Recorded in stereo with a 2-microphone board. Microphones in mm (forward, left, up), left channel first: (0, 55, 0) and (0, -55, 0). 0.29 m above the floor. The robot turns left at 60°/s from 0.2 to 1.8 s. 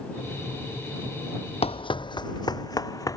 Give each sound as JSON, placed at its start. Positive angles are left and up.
{"t": 1.6, "sound": "running footsteps", "side_deg": 70}